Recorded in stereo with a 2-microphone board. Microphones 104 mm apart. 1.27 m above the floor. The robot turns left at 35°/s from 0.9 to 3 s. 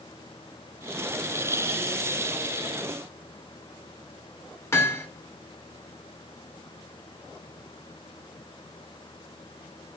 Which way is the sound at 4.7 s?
25° left (ahead or behind).